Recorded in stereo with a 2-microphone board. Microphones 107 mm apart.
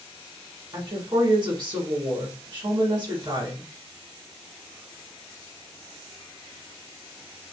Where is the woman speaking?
45° right (ahead or behind), 1.6 m.